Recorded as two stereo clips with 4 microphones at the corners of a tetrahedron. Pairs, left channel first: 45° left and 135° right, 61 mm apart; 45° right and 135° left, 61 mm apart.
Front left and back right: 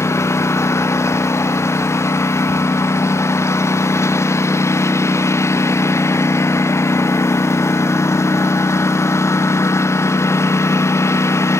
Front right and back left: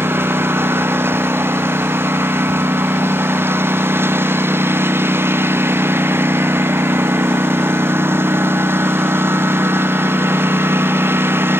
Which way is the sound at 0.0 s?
85° left.